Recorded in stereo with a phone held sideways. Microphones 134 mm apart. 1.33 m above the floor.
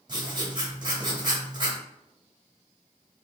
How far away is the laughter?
No laughter in this recording.